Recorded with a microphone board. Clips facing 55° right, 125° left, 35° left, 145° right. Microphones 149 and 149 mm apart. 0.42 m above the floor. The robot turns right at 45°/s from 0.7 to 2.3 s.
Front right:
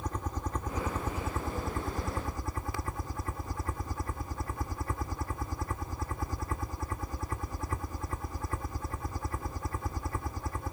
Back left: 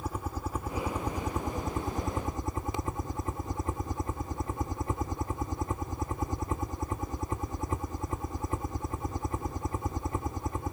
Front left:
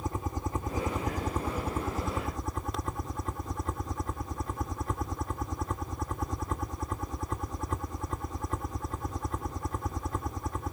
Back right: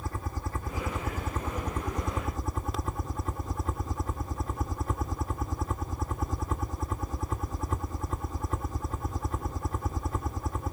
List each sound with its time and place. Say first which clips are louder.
0.0 s a helicopter: back left 1 dB, front left 3 dB; 55° left; by 10.7 s 130° left